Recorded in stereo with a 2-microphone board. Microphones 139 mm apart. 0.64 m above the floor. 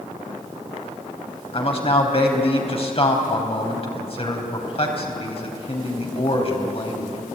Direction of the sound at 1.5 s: 45° left (ahead or behind).